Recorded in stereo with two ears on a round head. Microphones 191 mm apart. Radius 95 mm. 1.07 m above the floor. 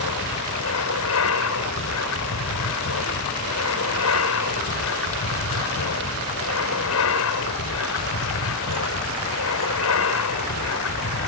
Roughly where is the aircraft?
Left.